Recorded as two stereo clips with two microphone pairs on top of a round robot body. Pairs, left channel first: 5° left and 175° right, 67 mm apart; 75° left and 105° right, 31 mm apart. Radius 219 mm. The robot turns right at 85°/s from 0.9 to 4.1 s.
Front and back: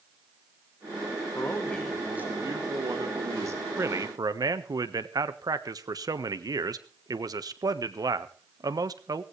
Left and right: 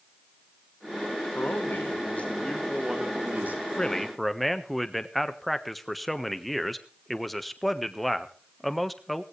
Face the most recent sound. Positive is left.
turn(degrees=165)